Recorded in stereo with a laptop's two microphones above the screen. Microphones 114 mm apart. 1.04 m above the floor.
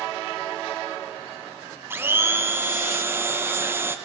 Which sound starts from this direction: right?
A blender, at 1.9 s.